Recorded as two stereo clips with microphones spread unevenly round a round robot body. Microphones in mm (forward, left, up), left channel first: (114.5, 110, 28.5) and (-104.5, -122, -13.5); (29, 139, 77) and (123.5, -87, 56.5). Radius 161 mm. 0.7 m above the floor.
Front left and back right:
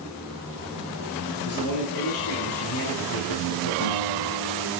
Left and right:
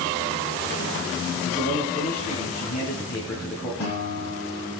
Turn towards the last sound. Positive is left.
turn(degrees=85)